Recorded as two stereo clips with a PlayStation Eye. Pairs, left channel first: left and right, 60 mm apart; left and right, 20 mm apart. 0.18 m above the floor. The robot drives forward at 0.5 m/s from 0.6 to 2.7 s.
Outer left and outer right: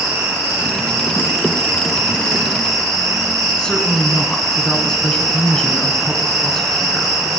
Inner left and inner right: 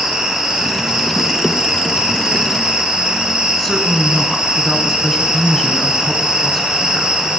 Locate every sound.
0.0 s an insect: 55° right (ahead or behind), 3 m; by 7.4 s 70° right (ahead or behind), 2.5 m
3.6 s a woman speaking: 15° left (ahead or behind), 1.7 m